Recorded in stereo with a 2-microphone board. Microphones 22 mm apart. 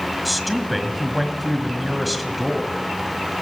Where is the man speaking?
Centre (ahead or behind), 1.6 m.